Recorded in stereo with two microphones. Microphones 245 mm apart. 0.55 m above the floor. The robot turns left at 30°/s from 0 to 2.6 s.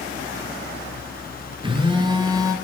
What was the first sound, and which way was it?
A phone buzzing, 20° right (ahead or behind).